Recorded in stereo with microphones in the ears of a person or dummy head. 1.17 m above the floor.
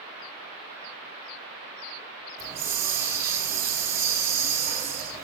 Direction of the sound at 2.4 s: 15° right (ahead or behind).